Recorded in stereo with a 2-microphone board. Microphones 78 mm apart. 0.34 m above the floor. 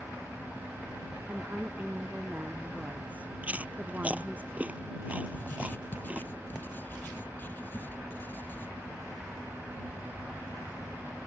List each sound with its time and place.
1.3 s a woman speaking: 20° right (ahead or behind)
3.4 s chewing: 20° right (ahead or behind)
5.3 s writing: 25° left (ahead or behind)